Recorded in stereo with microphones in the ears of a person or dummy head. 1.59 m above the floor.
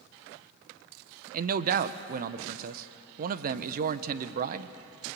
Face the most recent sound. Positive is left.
turn(degrees=-50)  # may be behind; listen again after turning